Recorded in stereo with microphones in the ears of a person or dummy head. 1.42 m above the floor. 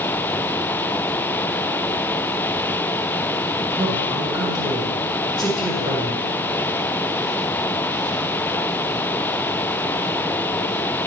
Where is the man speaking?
5° right (ahead or behind), 1.4 m.